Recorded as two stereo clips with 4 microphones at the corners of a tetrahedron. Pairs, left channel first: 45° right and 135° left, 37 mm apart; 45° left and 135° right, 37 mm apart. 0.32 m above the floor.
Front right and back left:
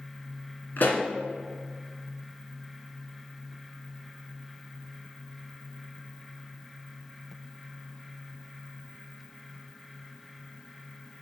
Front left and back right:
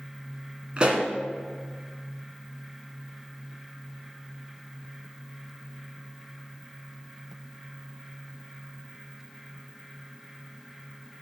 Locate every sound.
0.8 s a pop: 75° right, 1.6 m